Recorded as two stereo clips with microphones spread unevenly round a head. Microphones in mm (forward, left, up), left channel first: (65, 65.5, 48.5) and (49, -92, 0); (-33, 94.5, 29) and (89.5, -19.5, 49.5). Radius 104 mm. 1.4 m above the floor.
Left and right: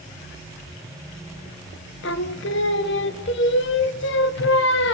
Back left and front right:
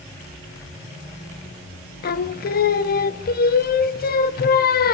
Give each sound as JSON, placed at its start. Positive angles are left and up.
{"t": 2.0, "sound": "singing", "azimuth_deg": 100, "distance_m": 0.6}